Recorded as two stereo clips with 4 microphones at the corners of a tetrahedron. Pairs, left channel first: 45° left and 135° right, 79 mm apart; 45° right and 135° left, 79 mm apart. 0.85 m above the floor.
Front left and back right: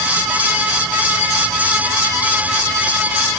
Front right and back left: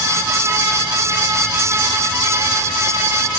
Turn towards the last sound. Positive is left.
No sound to turn to.